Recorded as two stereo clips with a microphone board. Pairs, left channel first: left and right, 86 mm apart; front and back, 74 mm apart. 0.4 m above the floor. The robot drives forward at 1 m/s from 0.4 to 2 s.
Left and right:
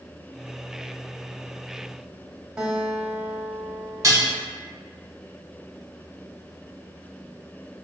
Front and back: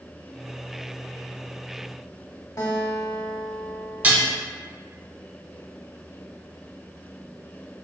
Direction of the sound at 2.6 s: 10° right.